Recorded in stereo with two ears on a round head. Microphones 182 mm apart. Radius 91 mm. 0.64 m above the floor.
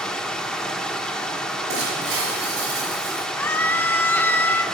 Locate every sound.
0.0 s running water: 5° left (ahead or behind), 0.9 m
1.7 s breaking glass: 75° right (ahead or behind), 5.5 m
3.4 s a scream: 10° left (ahead or behind), 0.5 m